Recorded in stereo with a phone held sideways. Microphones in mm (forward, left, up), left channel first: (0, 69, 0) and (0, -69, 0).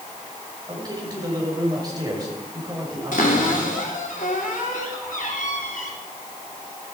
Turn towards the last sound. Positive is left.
turn(degrees=80)